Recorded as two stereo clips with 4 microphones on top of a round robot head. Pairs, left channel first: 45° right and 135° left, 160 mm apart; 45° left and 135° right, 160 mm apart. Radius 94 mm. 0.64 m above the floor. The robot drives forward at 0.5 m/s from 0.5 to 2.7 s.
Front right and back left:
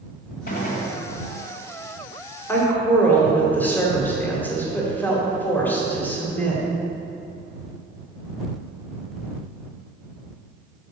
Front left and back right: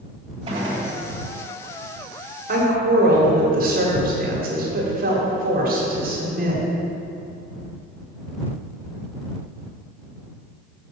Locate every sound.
0.5 s a gunshot: 70° right, 2.0 m; by 0.9 s 75° right, 1.9 m
2.5 s a woman speaking: 120° right, 1.9 m